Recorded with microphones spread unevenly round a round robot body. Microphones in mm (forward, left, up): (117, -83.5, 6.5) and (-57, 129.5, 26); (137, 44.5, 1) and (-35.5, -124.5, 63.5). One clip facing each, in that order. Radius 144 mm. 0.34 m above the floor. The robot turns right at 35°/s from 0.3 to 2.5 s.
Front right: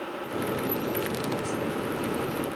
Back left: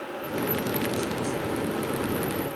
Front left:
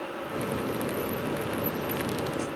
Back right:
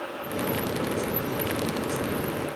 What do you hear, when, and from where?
Only background noise.